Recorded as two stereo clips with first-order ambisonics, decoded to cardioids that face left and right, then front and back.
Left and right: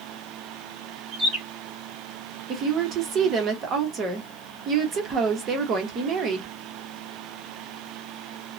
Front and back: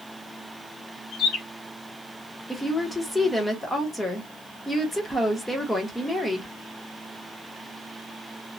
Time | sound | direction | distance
1.1 | a bird | 25° right | 1.3 m
2.5 | a woman speaking | 75° right | 0.7 m